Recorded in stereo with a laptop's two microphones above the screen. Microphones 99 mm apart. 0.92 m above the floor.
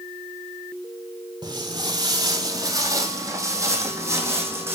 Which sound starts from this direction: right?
Footsteps, at 1.4 s.